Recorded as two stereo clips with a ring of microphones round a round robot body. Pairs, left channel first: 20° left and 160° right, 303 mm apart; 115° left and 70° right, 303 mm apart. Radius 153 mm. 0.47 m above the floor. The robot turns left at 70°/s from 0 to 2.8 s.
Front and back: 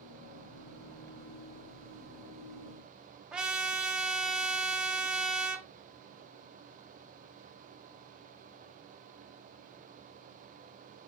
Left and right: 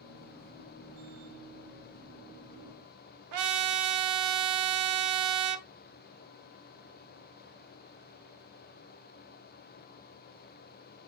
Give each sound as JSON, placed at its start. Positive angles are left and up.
{"t": 3.3, "sound": "a trumpet", "azimuth_deg": -70, "distance_m": 0.6}